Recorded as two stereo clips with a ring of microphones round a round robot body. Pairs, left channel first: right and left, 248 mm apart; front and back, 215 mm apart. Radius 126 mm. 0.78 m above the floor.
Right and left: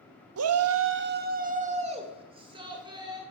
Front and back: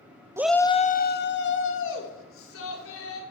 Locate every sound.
0.4 s a shout: 105° left, 0.7 m; by 3.2 s 15° left, 3 m